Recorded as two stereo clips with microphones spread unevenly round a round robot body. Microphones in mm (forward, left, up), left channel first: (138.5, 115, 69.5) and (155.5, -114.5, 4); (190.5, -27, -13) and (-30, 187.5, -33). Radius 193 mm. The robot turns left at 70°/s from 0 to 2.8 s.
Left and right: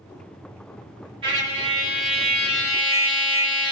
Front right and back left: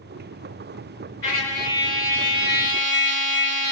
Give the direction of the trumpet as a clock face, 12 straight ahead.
4 o'clock.